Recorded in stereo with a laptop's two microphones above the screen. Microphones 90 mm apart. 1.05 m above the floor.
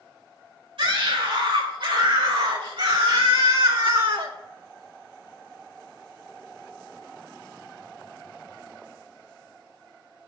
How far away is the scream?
About 5 m.